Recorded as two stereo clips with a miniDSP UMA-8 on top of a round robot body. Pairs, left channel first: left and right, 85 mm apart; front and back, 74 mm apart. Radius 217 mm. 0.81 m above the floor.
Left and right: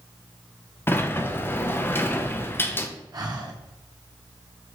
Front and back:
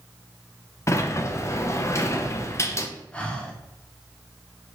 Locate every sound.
0.9 s a sliding door: 35° left, 0.7 m
3.1 s breathing: 70° right, 1.1 m